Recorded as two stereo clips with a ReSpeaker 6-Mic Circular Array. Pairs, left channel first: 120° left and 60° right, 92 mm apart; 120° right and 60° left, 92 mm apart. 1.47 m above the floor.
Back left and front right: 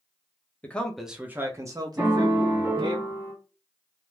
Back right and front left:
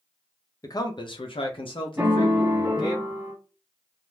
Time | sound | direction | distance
0.6 | a man speaking | 170° right | 0.6 m
2.0 | a piano | 5° right | 1.0 m